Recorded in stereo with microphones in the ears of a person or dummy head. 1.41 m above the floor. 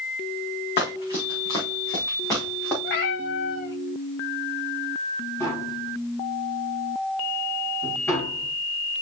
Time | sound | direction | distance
0.8 | running footsteps | 30° left (ahead or behind) | 4 m
2.8 | a cat meowing | 55° left (ahead or behind) | 1.5 m
5.4 | tapping | 15° left (ahead or behind) | 4 m